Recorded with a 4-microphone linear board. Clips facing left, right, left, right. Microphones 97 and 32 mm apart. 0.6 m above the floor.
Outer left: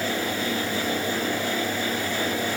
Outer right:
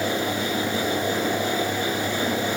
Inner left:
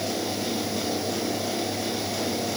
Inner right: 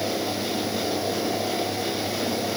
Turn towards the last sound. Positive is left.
No sound to turn to.